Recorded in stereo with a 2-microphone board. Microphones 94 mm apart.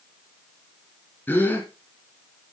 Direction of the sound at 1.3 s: 15° left (ahead or behind).